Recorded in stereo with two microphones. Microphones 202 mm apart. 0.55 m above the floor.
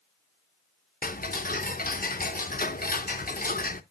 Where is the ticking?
45° left (ahead or behind), 0.6 m.